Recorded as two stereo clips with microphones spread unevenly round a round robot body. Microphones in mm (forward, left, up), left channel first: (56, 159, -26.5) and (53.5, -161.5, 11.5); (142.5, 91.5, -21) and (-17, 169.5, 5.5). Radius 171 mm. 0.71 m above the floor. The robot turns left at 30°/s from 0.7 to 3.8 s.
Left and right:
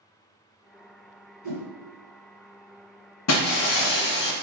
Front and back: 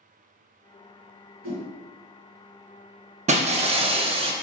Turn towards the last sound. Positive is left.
turn(degrees=110)